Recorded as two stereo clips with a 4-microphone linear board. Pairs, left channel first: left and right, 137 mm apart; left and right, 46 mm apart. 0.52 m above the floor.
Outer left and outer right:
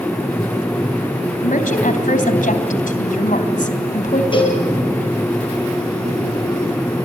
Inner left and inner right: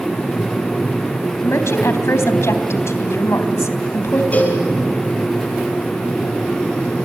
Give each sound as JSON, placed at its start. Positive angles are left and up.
{"t": 1.4, "sound": "a woman speaking", "side_deg": 75, "distance_m": 3.0}
{"t": 4.3, "sound": "a cowbell", "side_deg": 35, "distance_m": 6.0}